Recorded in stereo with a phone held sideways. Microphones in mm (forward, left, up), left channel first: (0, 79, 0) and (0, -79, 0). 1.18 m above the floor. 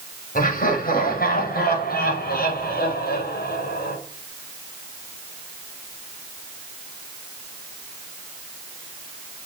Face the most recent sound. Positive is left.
turn(degrees=85)